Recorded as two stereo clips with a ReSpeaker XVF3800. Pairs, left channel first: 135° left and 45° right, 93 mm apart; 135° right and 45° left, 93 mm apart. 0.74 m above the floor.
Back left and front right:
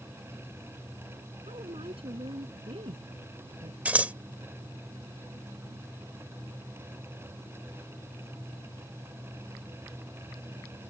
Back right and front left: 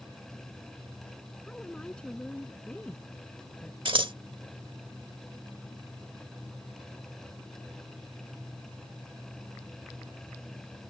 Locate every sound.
1.5 s a woman speaking: 55° right
3.9 s scissors: 30° left